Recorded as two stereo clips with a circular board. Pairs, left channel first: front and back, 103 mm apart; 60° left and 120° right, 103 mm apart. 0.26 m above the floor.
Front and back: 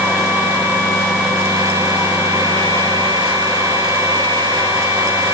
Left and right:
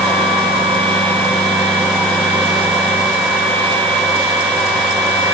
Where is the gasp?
I don't hear a gasp.